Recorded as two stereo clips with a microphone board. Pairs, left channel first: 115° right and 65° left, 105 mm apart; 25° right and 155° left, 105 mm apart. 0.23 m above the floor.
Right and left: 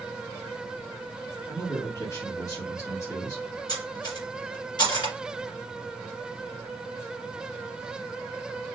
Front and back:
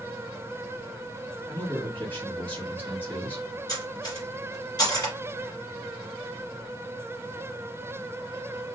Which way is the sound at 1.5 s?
80° right.